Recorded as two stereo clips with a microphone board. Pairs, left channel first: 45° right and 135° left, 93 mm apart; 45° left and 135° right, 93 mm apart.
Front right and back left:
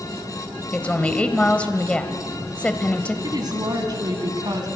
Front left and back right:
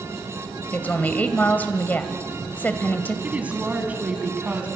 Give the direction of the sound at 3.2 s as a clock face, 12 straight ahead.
7 o'clock.